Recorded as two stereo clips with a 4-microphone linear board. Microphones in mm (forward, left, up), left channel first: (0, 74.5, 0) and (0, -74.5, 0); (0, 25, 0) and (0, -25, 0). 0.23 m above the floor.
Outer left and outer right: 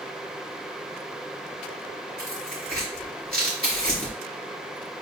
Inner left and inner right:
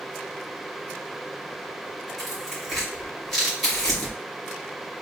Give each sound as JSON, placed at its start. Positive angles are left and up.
{"t": 2.2, "sound": "tearing paper", "side_deg": 5, "distance_m": 3.5}